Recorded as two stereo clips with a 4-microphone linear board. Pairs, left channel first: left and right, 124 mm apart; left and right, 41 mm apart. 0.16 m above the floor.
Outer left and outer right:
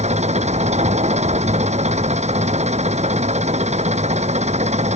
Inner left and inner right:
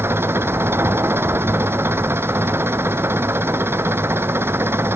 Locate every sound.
0.0 s an engine running: 65° right (ahead or behind)